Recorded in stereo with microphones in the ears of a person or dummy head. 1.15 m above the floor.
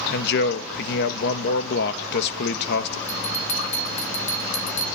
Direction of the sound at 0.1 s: 60° left (ahead or behind).